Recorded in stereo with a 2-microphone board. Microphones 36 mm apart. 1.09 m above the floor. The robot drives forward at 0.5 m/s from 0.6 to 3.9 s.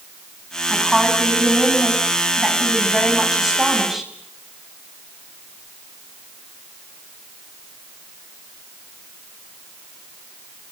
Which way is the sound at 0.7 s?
5° right (ahead or behind).